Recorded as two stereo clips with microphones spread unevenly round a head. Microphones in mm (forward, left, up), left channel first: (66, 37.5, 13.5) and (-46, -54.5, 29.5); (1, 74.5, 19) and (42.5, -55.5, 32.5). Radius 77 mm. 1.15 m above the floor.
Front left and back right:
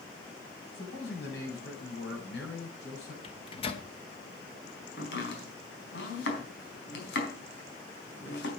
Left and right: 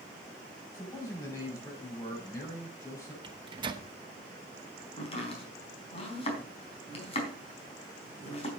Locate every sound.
0.7 s a man speaking: 40° left, 8 m
3.2 s a microwave: 15° right, 1.2 m
5.0 s chopping: 60° left, 4 m